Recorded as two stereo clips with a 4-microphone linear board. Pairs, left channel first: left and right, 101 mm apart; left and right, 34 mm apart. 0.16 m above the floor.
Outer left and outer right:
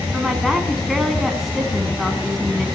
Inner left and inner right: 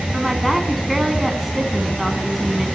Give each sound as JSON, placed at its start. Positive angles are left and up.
{"t": 0.1, "sound": "a woman speaking", "side_deg": 0, "distance_m": 1.1}